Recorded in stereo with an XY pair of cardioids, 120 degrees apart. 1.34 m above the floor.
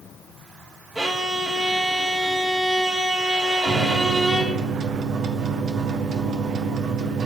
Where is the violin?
25° right, 2 m.